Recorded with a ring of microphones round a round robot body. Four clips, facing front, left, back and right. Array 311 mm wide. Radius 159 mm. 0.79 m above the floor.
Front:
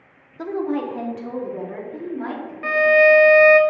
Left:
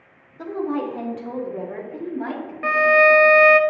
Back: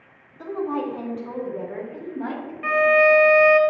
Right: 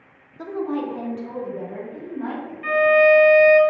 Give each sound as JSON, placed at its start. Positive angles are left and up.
{"t": 0.4, "sound": "a woman speaking", "azimuth_deg": 0, "distance_m": 1.4}
{"t": 2.6, "sound": "a violin", "azimuth_deg": 70, "distance_m": 0.6}